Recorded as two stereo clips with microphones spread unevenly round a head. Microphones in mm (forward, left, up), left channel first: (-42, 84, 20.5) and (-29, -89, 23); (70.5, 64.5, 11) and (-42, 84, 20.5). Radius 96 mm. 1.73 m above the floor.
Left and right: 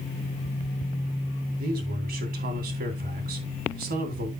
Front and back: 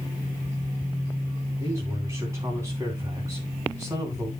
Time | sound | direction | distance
1.6 | a man speaking | 115° right | 2.5 m